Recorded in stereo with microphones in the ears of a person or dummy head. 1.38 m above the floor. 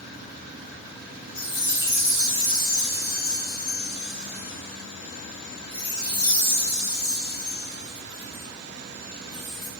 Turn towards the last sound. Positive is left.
turn(degrees=25)  # may be behind; listen again after turning